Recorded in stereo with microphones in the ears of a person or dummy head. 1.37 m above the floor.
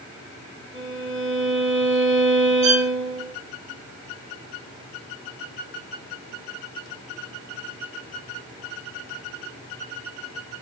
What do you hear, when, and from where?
0.7 s a violin: 25° right (ahead or behind), 1.8 m
2.6 s a violin: 50° right (ahead or behind), 1.4 m